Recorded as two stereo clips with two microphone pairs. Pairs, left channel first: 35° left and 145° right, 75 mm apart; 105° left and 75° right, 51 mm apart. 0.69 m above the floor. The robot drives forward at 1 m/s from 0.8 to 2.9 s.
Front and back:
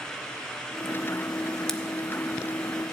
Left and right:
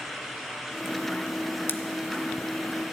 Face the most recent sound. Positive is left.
turn(degrees=160)